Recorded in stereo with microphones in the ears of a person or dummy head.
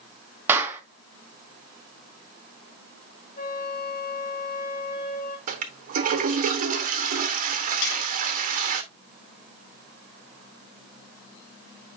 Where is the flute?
40° left (ahead or behind), 2.0 m.